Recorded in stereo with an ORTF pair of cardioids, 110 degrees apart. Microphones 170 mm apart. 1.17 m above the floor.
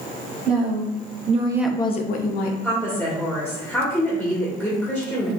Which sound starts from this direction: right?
A woman speaking, at 0.5 s.